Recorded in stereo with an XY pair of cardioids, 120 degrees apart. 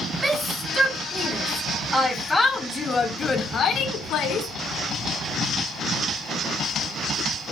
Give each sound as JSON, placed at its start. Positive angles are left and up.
{"t": 0.2, "sound": "a shout", "azimuth_deg": -15, "distance_m": 3.0}